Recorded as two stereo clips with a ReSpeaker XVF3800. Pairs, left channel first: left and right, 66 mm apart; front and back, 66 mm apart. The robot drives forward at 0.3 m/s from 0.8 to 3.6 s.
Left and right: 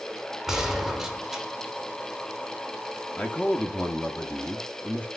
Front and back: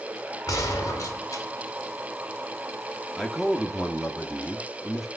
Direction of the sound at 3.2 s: 80° left.